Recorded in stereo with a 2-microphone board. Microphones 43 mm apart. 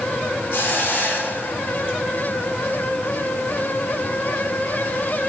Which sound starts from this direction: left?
A hiss, at 0.5 s.